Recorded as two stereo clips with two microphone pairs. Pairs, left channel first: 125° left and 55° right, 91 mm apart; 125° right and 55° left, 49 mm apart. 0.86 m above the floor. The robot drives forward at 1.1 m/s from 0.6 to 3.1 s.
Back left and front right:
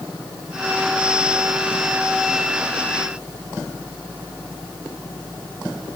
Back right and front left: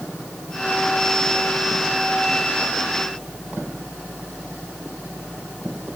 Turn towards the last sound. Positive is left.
No sound to turn to.